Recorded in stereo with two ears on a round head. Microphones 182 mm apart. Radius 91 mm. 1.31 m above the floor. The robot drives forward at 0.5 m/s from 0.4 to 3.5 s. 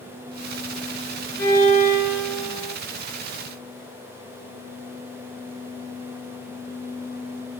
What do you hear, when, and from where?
1.4 s a violin: 55° right (ahead or behind), 1.8 m; by 2.8 s 40° right (ahead or behind), 2 m